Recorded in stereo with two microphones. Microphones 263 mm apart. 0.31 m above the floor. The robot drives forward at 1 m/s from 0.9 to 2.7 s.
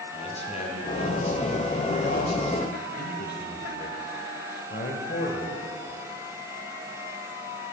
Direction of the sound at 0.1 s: 25° left (ahead or behind).